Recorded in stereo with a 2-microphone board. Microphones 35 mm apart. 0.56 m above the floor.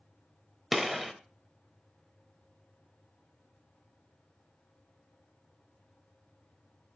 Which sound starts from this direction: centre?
A gunshot, at 0.7 s.